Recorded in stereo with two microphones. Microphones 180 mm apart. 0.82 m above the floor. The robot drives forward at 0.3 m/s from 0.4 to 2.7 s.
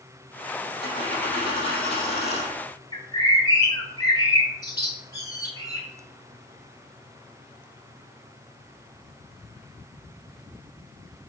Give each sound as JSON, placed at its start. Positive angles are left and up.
{"t": 0.8, "sound": "a dropped coin", "side_deg": 30, "distance_m": 3.5}
{"t": 2.9, "sound": "a bird", "side_deg": 20, "distance_m": 1.5}